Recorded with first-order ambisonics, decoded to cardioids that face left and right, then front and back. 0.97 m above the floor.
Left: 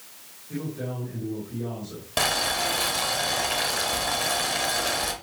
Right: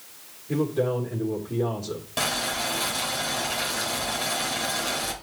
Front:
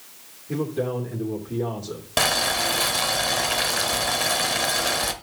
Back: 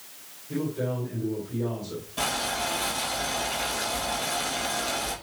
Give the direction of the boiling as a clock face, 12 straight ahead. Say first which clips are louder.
Left 3 dB, front 7 dB; 11 o'clock.